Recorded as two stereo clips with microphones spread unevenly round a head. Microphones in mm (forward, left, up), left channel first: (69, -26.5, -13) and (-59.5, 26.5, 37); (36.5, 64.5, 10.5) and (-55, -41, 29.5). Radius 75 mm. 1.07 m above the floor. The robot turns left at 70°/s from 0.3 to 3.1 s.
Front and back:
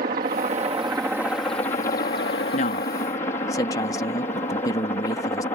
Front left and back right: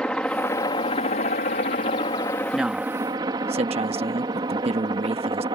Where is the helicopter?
130° left; by 5.5 s 75° right.